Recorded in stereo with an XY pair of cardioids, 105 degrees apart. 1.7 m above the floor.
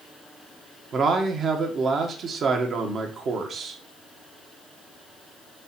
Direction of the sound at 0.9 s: 50° right.